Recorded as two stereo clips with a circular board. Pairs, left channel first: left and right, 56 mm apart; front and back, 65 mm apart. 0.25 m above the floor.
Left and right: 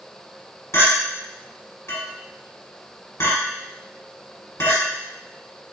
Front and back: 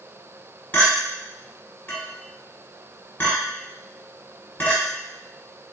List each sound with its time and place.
0.7 s a clink: 60° left, 1.6 m